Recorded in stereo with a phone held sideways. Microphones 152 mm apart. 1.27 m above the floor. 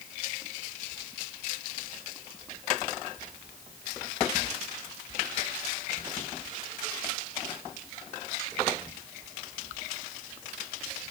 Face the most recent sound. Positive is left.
No sound to turn to.